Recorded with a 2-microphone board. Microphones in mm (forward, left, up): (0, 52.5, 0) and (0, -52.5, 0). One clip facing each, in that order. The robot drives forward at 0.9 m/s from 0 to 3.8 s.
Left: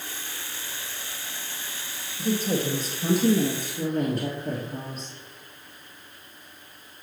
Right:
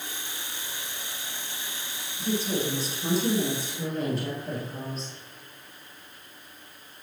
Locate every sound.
2.2 s a woman speaking: 45° left (ahead or behind), 2 m; by 5.1 s 50° left (ahead or behind), 2.0 m